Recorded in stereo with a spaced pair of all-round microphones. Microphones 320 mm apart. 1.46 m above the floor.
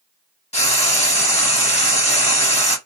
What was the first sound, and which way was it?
Frying, 20° left (ahead or behind).